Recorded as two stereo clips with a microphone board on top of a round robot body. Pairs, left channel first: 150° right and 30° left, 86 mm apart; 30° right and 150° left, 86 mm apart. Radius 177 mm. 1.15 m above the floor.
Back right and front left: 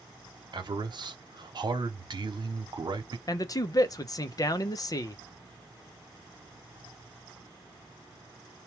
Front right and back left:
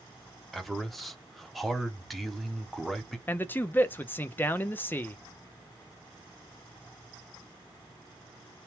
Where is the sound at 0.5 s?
60° left, 0.9 m.